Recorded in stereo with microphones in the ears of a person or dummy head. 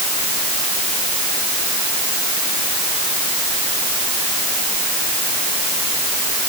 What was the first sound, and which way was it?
Only background noise.